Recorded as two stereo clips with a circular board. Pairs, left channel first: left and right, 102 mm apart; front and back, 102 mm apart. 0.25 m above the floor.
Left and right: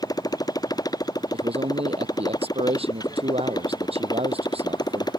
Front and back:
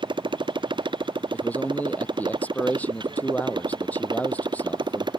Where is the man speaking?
75° right.